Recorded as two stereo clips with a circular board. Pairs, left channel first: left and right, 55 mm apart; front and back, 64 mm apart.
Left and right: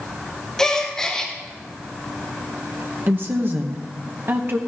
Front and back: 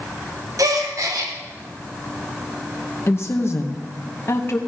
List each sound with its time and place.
0.6 s a gasp: 165° left, 1.3 m
3.1 s a woman speaking: 45° right, 0.9 m